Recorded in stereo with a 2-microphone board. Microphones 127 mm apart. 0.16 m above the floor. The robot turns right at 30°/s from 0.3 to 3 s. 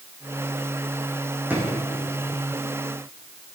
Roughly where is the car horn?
I don't hear a car horn.